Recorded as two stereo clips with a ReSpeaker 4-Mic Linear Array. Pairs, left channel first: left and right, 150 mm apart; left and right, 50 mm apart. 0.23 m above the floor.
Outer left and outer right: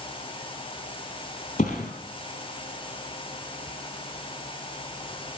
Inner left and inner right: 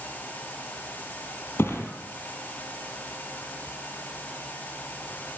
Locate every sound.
1.6 s a thud: 50° left (ahead or behind), 2.5 m